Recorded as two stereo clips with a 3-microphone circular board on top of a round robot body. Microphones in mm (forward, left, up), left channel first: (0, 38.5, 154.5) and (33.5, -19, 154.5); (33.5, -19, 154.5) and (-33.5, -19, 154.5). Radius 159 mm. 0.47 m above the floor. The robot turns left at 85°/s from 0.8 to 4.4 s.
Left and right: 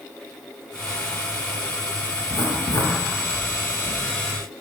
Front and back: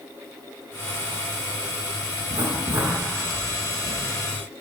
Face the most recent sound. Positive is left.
turn(degrees=-10)